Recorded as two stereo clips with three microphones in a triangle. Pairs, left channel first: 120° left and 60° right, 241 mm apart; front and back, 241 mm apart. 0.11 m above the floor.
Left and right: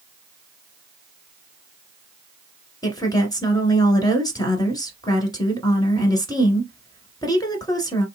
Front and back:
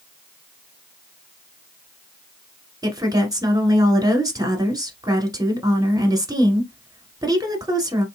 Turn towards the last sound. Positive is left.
turn(degrees=150)